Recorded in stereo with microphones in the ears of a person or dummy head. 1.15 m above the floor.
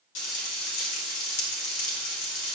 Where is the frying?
75° left (ahead or behind), 2.5 m.